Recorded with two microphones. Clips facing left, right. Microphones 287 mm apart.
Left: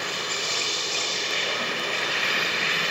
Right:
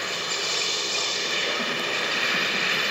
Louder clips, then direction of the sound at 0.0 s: Even; 50° right (ahead or behind).